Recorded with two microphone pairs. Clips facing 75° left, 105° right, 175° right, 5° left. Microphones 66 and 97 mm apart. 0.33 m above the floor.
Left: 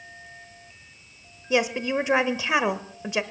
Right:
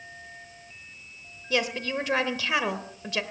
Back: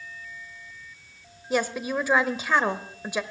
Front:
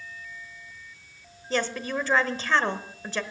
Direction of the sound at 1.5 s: 120° left.